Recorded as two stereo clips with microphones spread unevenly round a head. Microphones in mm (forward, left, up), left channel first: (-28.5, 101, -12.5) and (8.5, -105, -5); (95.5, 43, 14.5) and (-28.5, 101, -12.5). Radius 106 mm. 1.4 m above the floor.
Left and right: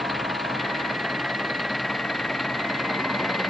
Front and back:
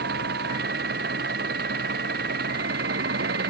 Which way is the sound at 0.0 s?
170° right.